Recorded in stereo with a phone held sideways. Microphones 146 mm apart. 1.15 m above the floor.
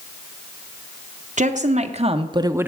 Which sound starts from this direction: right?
A woman speaking, at 1.4 s.